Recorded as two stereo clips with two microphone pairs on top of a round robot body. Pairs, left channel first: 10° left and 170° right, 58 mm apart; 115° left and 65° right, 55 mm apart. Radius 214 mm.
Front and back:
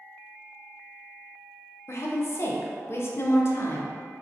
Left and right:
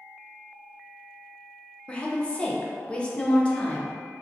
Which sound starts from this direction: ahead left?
A woman speaking, at 1.9 s.